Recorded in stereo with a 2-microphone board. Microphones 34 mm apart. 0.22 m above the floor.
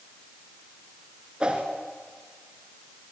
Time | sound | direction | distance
1.4 | a whoosh | 30° right (ahead or behind) | 2.5 m